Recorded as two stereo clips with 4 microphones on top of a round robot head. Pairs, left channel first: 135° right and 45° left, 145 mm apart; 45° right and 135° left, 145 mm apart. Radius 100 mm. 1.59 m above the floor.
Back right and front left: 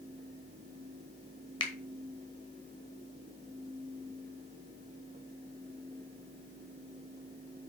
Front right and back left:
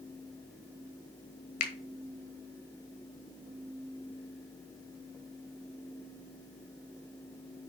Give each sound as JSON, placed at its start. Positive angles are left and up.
{"t": 1.6, "sound": "a finger snap", "azimuth_deg": -75, "distance_m": 1.3}